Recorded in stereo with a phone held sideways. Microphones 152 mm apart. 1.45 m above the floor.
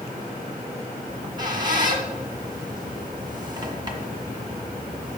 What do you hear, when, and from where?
1.1 s a squeak: 25° right (ahead or behind), 1.7 m